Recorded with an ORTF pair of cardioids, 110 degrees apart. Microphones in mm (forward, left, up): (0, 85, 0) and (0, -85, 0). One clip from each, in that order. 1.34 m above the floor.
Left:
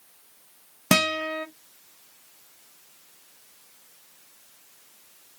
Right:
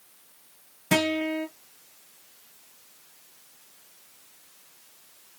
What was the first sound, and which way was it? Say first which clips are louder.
A guitar: left 2 dB; 70° left.